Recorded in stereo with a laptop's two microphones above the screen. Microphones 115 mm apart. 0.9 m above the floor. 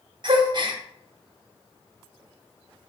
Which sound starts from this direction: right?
A gasp, at 0.2 s.